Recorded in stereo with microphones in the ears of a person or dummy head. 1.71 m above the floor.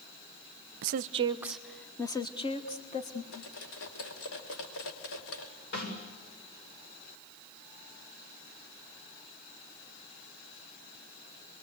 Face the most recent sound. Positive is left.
turn(degrees=60)  # may be behind; listen again after turning